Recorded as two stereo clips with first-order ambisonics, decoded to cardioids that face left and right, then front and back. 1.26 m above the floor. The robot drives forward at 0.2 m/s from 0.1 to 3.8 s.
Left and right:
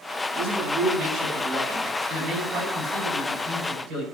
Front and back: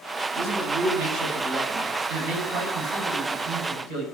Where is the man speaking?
160° right, 9 m.